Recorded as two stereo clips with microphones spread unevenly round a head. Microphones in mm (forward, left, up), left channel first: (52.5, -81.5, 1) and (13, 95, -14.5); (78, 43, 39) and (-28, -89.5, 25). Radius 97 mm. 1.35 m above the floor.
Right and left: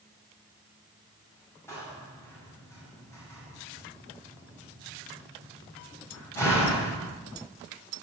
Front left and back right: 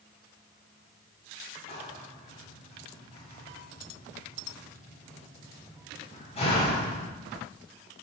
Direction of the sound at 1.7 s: 5° right.